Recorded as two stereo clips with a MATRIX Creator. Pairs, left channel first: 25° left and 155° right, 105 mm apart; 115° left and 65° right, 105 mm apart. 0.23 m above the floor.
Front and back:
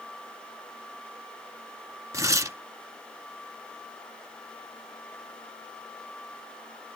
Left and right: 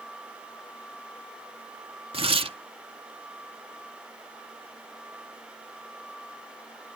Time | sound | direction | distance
2.1 | tearing paper | 95° right | 0.5 m